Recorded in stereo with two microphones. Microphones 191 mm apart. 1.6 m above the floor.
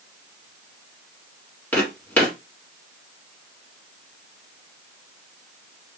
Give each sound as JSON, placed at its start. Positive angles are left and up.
{"t": 1.7, "sound": "footsteps", "side_deg": 10, "distance_m": 2.0}